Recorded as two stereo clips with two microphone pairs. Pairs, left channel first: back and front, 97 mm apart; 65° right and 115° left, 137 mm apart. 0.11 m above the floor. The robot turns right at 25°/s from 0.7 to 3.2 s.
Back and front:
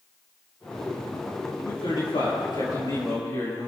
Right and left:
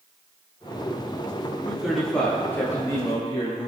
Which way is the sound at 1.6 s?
165° right.